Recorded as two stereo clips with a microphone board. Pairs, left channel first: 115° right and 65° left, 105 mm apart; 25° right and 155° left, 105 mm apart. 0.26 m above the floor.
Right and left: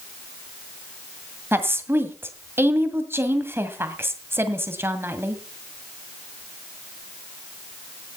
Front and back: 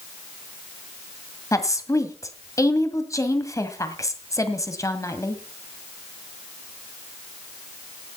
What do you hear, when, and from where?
1.5 s a woman speaking: 15° left, 1.7 m